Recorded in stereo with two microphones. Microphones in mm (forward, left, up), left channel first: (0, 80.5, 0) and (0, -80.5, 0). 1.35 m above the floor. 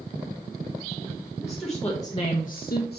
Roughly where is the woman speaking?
Centre.